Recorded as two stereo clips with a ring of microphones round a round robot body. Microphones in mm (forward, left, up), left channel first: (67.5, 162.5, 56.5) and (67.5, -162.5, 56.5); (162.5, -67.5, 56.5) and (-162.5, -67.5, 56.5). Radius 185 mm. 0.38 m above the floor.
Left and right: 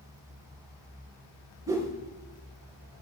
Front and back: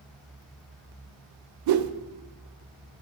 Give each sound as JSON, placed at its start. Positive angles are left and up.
{"t": 1.7, "sound": "a whoosh", "azimuth_deg": -170, "distance_m": 0.6}